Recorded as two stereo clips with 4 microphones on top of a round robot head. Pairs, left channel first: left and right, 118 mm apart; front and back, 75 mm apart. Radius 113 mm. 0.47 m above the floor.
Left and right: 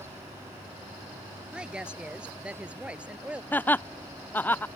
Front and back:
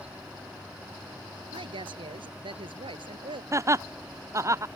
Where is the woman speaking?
170° right.